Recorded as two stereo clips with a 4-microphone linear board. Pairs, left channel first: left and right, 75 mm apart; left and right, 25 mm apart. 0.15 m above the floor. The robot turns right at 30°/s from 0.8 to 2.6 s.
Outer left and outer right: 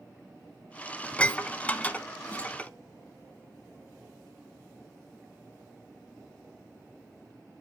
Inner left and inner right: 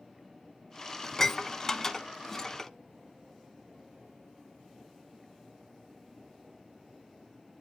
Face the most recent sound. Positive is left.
turn(degrees=20)  # may be behind; listen again after turning